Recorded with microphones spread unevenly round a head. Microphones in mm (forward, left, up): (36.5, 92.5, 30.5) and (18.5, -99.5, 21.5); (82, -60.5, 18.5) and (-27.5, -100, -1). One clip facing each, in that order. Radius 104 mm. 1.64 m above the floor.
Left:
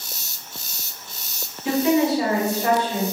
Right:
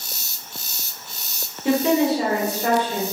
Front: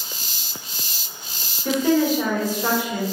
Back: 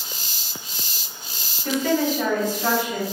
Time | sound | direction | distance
1.6 | a woman speaking | 60° right | 1.8 m